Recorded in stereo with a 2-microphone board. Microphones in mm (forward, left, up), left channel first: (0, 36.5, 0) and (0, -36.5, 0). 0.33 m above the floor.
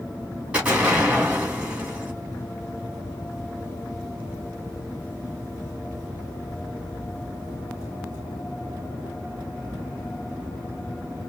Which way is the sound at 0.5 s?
15° right (ahead or behind).